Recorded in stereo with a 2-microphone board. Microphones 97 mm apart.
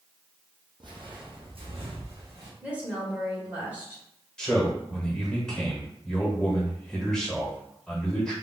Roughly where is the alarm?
No alarm in this recording.